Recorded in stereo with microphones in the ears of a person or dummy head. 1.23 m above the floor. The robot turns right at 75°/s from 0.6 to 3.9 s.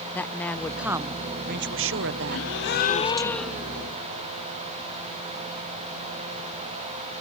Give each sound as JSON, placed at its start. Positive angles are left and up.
{"t": 0.1, "sound": "a woman speaking", "azimuth_deg": 170}
{"t": 2.3, "sound": "a gasp", "azimuth_deg": 90}